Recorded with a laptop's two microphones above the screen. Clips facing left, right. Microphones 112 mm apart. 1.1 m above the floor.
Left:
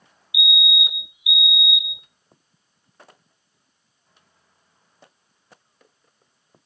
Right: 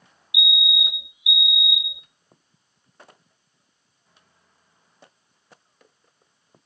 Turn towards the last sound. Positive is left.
turn(degrees=25)  # may be behind; listen again after turning